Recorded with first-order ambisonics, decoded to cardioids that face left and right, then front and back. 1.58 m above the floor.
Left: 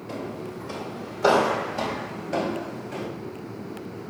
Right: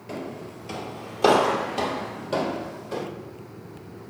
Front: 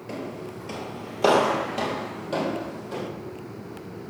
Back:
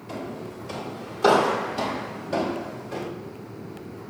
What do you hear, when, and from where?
0.1 s footsteps: 35° right, 1.6 m; by 3.1 s 65° right, 3 m